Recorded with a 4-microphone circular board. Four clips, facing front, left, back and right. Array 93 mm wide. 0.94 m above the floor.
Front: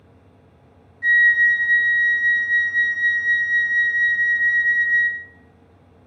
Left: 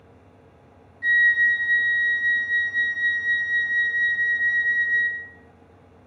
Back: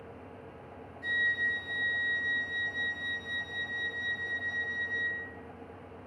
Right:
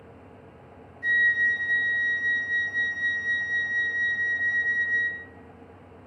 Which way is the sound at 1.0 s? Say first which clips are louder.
Left 4 dB, front 15 dB; 30° left.